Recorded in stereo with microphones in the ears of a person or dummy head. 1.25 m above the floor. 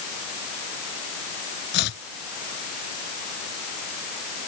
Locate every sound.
1.7 s chopping: 65° left (ahead or behind)